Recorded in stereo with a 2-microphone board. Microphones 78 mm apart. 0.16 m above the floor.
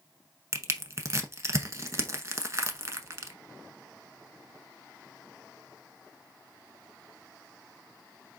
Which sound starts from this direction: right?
Crushing, at 0.5 s.